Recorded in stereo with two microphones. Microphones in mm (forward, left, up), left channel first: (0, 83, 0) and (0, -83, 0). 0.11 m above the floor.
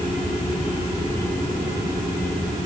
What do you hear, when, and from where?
Only background noise.